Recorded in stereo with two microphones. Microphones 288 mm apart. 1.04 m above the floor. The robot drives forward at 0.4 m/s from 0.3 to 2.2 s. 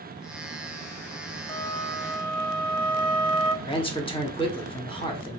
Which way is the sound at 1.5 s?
20° left (ahead or behind).